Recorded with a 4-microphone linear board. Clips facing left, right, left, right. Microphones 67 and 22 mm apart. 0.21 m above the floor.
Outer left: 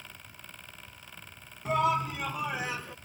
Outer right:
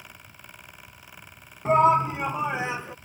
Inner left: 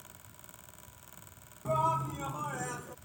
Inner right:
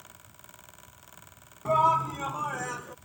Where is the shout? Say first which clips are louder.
Outer right 8 dB, inner right 7 dB; 35° right (ahead or behind); by 3.0 s 20° right (ahead or behind).